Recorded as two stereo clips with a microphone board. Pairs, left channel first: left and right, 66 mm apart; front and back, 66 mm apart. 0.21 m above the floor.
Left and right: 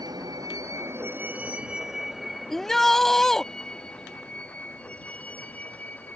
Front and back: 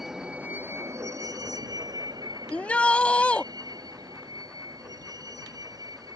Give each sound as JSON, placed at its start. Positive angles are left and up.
{"t": 0.0, "sound": "a vehicle", "azimuth_deg": -95}
{"t": 2.5, "sound": "a shout", "azimuth_deg": 20}